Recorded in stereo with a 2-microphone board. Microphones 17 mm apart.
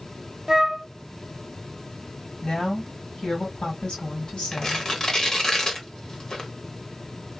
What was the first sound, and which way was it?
A flute, 40° right (ahead or behind).